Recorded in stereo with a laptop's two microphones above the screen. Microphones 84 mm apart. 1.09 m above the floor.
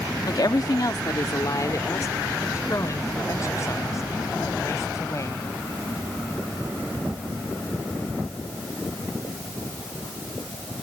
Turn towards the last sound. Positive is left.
turn(degrees=35)  # may be behind; listen again after turning